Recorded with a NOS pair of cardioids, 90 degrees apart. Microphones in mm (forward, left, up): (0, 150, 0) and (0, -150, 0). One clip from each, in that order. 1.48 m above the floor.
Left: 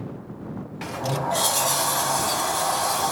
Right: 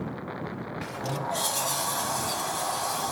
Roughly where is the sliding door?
Ahead left.